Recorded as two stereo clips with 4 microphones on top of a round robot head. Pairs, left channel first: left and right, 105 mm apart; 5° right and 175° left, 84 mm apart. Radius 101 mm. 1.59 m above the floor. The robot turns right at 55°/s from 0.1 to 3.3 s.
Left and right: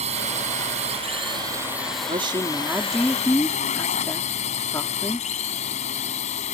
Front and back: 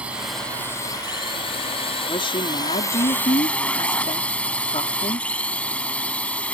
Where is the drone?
105° right; by 6.5 s 70° left.